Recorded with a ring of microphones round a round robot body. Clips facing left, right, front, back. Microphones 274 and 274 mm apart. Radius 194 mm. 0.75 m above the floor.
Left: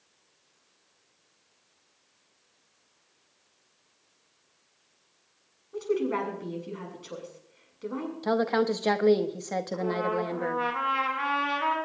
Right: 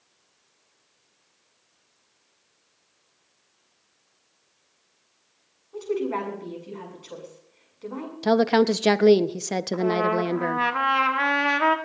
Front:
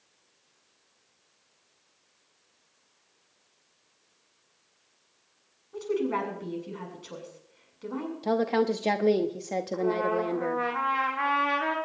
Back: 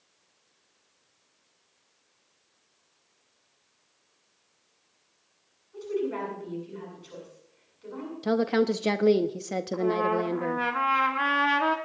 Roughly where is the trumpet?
Behind right.